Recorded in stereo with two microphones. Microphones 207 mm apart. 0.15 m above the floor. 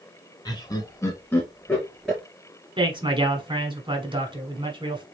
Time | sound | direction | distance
0.5 | laughter | 20° left (ahead or behind) | 1.4 m
2.8 | a man speaking | 25° right (ahead or behind) | 1.2 m